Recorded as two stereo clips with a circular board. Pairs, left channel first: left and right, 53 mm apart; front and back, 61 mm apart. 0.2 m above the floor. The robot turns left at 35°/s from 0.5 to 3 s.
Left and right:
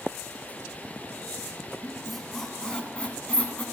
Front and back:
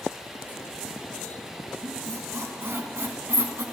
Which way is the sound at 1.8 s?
170° right.